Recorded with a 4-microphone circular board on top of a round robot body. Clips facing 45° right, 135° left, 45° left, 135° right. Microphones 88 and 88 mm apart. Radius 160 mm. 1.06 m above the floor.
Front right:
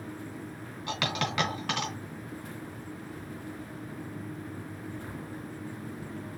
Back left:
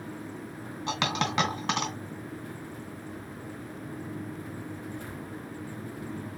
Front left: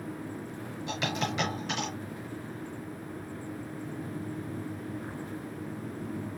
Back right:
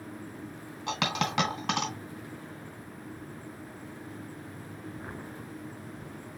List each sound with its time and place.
0.9 s a dropped coin: 160° right, 2 m